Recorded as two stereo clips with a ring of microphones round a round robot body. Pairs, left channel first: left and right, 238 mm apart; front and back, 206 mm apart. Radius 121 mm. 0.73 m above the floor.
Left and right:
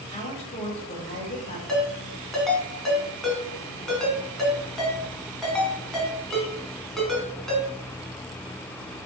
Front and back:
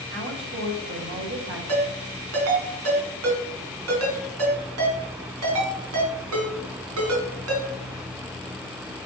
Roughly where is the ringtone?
Behind.